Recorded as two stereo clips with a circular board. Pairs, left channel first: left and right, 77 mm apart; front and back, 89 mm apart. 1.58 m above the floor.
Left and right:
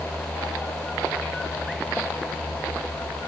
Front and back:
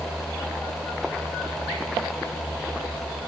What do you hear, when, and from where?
Only background noise.